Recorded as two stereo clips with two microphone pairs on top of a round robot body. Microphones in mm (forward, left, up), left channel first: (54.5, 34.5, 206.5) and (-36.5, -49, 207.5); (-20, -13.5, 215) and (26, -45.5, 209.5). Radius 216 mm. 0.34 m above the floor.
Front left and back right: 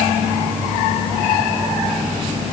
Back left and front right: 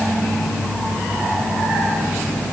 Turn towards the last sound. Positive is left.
No sound to turn to.